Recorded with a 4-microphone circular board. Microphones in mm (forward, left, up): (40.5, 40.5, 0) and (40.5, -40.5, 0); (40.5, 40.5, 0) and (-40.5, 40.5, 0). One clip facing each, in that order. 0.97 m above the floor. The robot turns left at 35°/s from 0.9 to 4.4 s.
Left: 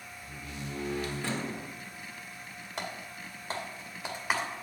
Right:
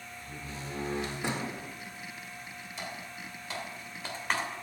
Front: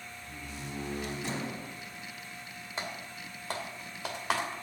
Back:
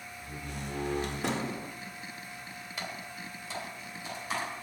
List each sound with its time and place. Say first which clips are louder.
0.2 s a door slam: even, back 4 dB; 145° right, 1.6 m; by 1.7 s 175° right, 1.6 m
2.8 s typing on a keyboard: left 3 dB, front 1 dB; 60° left, 2.5 m; by 4.5 s 5° left, 2.5 m